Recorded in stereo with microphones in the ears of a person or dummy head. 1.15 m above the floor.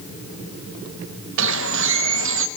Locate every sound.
1.4 s a bird: 80° right, 0.9 m